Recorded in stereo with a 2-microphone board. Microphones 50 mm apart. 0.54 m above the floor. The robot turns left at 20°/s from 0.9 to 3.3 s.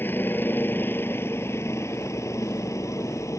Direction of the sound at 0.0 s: 40° left (ahead or behind).